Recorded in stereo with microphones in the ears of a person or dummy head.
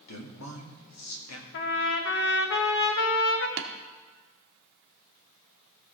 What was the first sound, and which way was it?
A man speaking, 85° left.